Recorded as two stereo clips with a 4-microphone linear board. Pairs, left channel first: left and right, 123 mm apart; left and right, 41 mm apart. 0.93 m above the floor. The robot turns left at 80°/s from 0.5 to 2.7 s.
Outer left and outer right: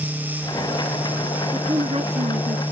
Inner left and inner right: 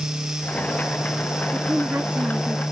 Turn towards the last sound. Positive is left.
turn(degrees=-115)